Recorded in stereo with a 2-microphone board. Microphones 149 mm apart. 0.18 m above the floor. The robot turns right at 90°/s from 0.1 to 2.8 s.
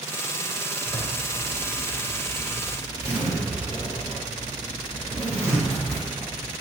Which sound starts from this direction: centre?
A zipper, at 0.8 s.